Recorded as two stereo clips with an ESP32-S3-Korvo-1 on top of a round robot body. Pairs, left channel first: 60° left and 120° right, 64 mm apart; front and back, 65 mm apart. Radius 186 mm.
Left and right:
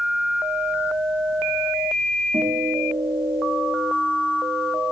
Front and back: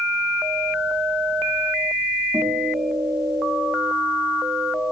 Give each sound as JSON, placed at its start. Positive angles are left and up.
{"t": 2.3, "sound": "a guitar", "azimuth_deg": -120, "distance_m": 9.0}